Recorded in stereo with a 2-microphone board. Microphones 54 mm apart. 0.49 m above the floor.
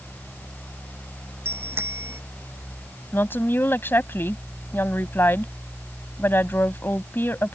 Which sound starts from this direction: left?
A woman speaking, at 3.1 s.